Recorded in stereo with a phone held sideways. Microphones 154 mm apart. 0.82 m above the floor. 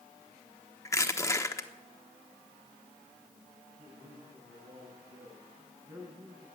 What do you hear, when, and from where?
0.8 s crushing: 20° left (ahead or behind), 1.0 m
3.8 s a man speaking: 25° right (ahead or behind), 9 m